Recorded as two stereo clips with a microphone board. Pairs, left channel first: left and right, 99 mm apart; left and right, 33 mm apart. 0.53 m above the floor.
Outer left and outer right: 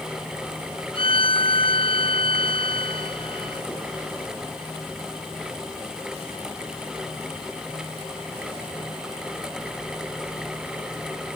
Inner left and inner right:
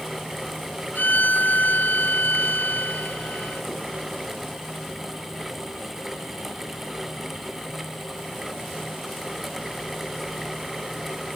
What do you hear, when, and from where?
0.9 s a violin: 60° left (ahead or behind)